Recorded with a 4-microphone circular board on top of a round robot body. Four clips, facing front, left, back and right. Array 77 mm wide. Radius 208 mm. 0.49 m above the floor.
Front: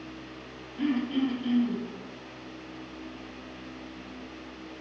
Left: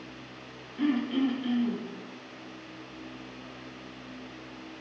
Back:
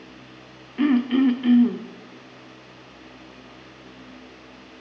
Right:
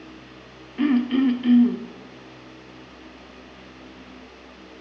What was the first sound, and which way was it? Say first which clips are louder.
Throat clearing: right 7 dB, back 8 dB; 155° right.